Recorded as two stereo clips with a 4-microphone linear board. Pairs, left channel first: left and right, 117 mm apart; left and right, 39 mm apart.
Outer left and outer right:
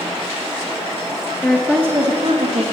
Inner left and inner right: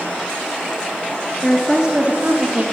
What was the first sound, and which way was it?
A woman speaking, 10° left (ahead or behind).